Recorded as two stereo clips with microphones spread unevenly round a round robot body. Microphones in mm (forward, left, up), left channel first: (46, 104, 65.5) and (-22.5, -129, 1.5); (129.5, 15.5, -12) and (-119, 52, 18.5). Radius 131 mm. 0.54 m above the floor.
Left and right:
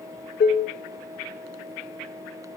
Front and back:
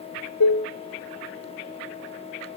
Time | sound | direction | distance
0.4 | dishes clattering | 10° left | 1.3 m